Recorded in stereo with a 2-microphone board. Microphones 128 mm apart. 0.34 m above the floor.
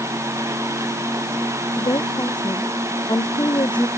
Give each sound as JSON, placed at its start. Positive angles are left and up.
{"t": 1.8, "sound": "a woman speaking", "side_deg": 35}